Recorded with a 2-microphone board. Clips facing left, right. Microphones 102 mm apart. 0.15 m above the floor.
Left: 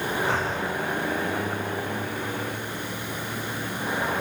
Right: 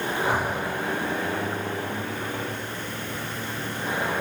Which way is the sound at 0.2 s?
15° right (ahead or behind).